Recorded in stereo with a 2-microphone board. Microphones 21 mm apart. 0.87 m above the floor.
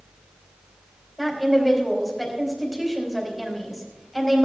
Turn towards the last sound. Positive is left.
turn(degrees=0)  # may be behind; listen again after turning